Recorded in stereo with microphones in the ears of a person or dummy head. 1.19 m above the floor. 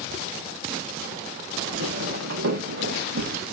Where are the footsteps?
50° right (ahead or behind), 3.5 m; by 3.4 s 60° right (ahead or behind), 5 m.